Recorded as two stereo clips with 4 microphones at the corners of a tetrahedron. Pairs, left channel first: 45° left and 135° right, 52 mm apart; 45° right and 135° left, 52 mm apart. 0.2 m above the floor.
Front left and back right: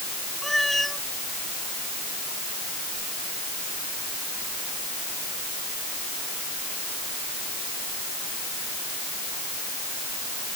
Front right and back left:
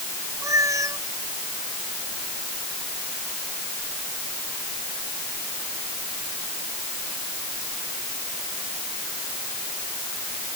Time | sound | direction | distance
0.4 | a cat meowing | 130° left | ?